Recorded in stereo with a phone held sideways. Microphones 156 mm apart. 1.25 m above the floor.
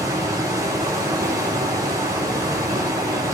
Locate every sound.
0.0 s running water: 25° right (ahead or behind), 2.5 m